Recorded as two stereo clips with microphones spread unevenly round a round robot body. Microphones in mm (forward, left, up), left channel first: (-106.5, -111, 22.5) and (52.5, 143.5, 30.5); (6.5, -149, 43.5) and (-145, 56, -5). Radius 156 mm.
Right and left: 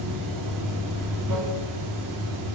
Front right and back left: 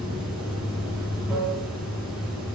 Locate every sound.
0.0 s running water: 45° left, 0.9 m